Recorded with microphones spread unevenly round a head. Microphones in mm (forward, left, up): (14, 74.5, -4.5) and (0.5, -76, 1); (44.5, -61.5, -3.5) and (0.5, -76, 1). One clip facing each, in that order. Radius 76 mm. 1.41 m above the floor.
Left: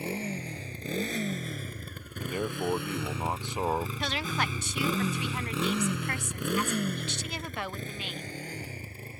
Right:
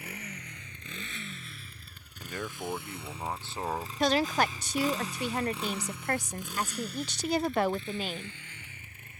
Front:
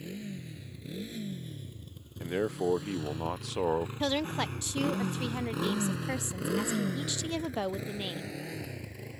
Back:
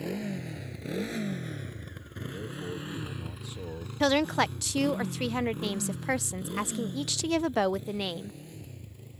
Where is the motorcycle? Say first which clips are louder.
Left 10 dB, back 7 dB; 150° left; by 9.2 s 25° left.